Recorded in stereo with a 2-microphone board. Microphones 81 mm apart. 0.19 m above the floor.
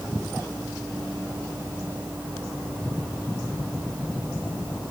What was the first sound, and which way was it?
Only background noise.